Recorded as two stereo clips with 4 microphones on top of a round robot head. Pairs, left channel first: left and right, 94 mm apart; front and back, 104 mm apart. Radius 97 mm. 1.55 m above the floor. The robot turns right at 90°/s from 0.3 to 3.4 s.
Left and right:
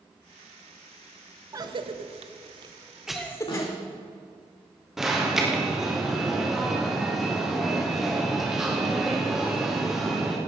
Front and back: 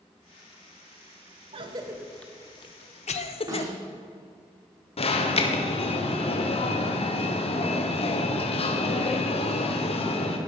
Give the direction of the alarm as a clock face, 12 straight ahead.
12 o'clock.